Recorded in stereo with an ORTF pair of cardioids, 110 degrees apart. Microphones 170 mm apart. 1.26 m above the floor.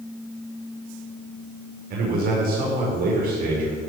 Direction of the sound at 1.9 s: 65° right.